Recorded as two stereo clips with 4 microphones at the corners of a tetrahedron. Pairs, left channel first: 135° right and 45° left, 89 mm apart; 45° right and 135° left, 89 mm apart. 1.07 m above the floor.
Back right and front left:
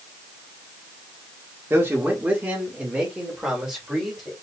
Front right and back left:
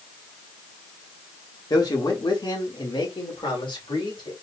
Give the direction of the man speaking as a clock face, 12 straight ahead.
12 o'clock.